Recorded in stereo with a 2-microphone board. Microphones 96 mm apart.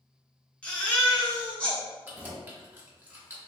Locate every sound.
0.6 s a baby crying: 15° left (ahead or behind), 0.9 m
2.0 s keys jangling: 20° right (ahead or behind), 0.9 m